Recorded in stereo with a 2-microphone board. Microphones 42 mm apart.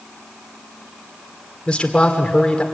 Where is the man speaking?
25° left (ahead or behind), 2.0 m.